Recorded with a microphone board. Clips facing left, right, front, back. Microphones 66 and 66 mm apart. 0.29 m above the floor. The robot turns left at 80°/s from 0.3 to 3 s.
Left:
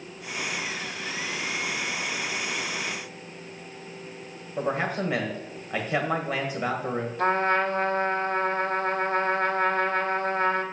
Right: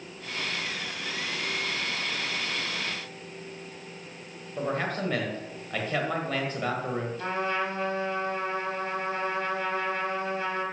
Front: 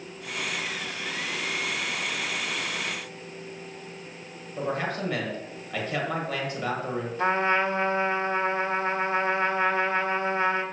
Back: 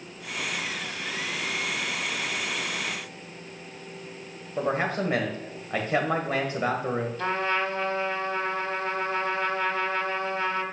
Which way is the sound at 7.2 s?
60° left.